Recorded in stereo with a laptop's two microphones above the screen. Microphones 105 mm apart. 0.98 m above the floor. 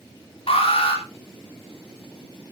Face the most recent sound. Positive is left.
turn(degrees=70)  # may be behind; listen again after turning